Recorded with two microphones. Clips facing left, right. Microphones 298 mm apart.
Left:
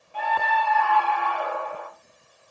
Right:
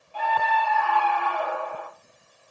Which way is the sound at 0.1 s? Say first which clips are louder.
Right 1 dB; 20° left (ahead or behind).